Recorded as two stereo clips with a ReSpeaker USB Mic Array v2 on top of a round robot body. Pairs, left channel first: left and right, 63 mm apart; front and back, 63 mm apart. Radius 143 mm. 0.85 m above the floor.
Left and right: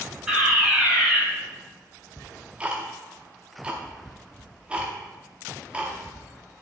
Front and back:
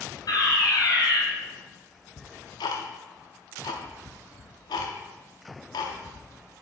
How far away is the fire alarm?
About 3.5 m.